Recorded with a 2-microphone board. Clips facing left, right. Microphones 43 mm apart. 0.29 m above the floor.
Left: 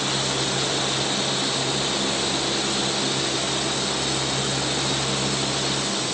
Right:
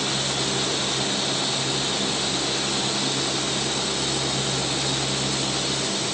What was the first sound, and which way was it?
Only background noise.